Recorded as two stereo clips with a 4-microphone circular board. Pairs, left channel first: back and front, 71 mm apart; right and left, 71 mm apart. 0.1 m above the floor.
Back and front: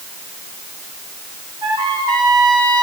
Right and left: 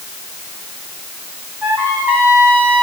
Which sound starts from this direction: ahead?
A trumpet, at 1.6 s.